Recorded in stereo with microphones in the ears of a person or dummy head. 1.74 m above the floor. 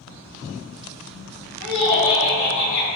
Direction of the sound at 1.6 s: 65° left (ahead or behind).